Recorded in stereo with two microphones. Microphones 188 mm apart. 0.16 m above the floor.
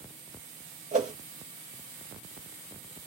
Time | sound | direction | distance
0.9 | a whoosh | 40° right (ahead or behind) | 0.9 m